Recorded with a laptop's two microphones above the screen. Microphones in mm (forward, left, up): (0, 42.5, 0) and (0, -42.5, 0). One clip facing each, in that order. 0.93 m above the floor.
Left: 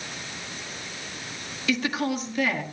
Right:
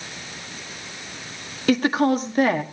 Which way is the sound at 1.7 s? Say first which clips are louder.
Right 7 dB; 45° right (ahead or behind).